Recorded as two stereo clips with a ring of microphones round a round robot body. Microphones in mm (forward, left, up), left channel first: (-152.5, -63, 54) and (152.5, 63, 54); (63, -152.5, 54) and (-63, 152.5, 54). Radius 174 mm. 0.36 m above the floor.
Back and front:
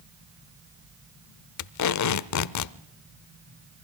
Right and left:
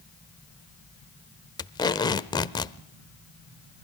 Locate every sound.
1.6 s tape being pulled: 145° right, 0.7 m